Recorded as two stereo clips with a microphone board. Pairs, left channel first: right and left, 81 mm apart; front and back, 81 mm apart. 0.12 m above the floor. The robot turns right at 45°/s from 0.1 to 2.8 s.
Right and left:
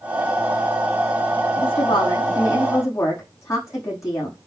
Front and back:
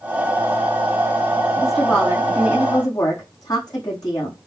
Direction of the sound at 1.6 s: 95° right.